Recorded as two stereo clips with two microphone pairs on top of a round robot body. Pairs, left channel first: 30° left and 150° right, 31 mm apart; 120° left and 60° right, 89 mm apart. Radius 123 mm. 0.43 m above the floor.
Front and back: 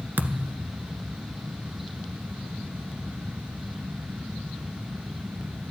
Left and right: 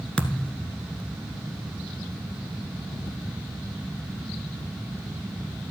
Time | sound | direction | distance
0.2 | a thud | 160° right | 1.4 m